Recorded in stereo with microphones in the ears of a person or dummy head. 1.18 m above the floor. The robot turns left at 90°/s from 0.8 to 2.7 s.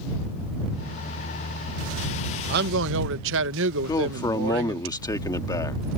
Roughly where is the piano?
I don't hear a piano.